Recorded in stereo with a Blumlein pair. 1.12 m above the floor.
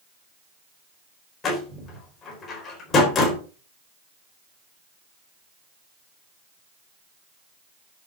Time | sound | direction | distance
1.4 | a door slam | 25° left | 4 m